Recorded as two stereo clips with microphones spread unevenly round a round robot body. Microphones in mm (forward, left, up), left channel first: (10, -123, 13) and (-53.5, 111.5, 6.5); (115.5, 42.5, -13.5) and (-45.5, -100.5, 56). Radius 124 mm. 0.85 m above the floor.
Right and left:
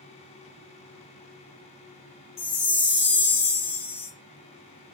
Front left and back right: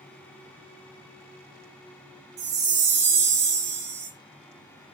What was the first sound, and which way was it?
A chime, 135° right.